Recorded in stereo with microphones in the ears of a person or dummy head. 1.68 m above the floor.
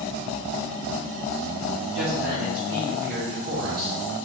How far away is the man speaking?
About 1.3 m.